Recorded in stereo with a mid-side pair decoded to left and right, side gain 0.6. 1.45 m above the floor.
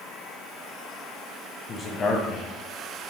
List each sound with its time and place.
1.7 s a man speaking: 30° left, 0.9 m